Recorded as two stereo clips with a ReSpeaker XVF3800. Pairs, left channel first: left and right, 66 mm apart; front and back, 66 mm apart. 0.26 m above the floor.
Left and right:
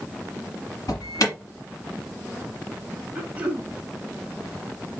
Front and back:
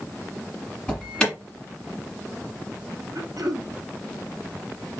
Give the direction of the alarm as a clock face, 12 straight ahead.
10 o'clock.